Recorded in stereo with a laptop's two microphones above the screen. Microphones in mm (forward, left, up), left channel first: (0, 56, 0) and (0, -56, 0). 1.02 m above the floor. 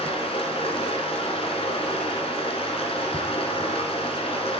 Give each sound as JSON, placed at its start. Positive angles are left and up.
{"t": 0.0, "sound": "running water", "side_deg": 60, "distance_m": 2.5}